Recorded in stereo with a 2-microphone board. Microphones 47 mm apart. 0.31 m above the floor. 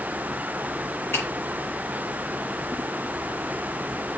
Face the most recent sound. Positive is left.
turn(degrees=55)  # may be behind; listen again after turning